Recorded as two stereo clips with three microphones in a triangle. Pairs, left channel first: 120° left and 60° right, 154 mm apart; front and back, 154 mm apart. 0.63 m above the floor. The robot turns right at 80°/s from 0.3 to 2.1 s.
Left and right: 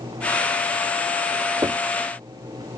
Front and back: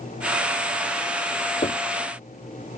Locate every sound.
1.6 s knocking: straight ahead; by 1.8 s 15° left